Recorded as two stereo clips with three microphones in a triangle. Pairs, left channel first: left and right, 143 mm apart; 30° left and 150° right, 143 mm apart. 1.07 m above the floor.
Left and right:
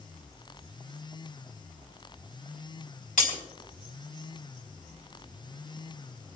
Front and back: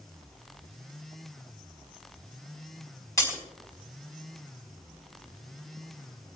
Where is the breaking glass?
95° left, 3.5 m.